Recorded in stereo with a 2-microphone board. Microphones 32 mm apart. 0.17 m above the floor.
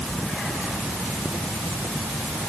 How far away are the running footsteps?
No running footsteps in this recording.